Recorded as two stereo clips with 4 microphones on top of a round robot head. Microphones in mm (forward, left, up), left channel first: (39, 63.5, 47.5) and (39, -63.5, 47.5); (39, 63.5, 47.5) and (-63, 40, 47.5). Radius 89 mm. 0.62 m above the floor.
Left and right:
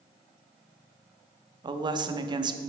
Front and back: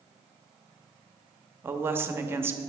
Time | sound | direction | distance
1.6 | a woman speaking | 115° right | 0.7 m